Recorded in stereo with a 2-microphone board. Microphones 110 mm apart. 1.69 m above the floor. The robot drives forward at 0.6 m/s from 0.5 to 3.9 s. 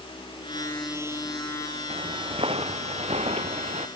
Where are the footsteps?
60° right (ahead or behind); by 3.9 s 75° right (ahead or behind).